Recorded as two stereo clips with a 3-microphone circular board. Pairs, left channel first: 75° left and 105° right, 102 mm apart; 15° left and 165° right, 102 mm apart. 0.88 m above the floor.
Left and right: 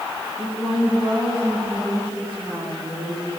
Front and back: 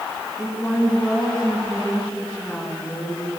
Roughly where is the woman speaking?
Right.